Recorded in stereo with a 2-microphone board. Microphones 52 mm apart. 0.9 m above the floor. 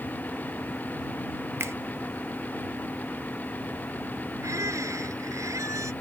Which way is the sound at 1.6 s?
55° right (ahead or behind).